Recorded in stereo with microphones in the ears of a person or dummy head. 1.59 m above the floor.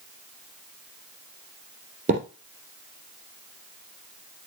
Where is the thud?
45° right (ahead or behind), 3.5 m.